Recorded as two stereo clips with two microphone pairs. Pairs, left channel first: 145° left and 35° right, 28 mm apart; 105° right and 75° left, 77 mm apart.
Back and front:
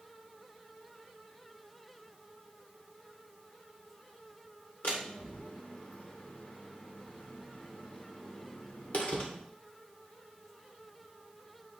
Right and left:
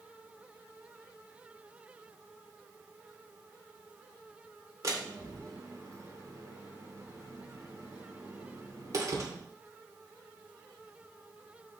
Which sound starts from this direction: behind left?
A door slam, at 4.8 s.